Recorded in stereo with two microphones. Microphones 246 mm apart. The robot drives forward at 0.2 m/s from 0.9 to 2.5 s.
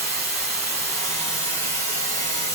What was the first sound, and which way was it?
Running water, 15° left (ahead or behind).